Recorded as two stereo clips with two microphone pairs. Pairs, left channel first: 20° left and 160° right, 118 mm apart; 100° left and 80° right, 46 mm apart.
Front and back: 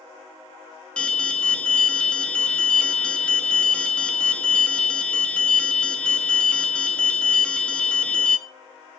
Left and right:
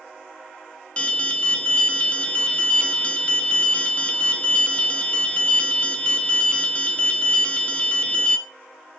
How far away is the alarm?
About 1.0 m.